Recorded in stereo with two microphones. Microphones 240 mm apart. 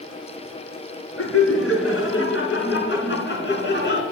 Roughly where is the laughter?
Left.